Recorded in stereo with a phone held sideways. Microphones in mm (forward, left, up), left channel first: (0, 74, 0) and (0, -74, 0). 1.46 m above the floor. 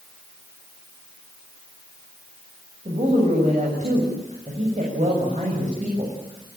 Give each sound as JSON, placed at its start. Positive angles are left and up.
{"t": 2.9, "sound": "a woman speaking", "side_deg": -55, "distance_m": 7.0}